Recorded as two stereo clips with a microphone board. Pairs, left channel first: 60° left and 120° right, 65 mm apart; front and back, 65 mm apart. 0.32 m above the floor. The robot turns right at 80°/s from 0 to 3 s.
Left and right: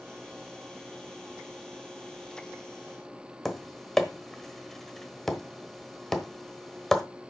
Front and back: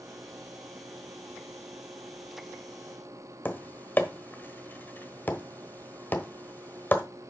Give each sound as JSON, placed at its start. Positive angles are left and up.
{"t": 3.5, "sound": "tapping", "azimuth_deg": -20, "distance_m": 1.1}